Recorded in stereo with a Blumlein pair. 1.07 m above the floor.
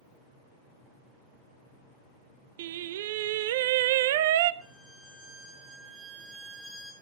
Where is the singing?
55° right, 0.5 m.